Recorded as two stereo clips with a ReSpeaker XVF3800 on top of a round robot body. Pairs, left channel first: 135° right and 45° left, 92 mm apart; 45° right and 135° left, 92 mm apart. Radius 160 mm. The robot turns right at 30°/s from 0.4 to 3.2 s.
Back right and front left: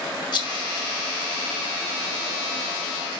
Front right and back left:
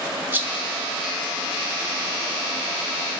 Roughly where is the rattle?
Behind.